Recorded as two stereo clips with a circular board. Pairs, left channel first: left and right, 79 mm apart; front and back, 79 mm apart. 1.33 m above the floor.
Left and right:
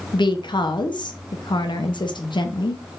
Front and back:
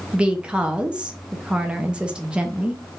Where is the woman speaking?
105° left, 0.7 m.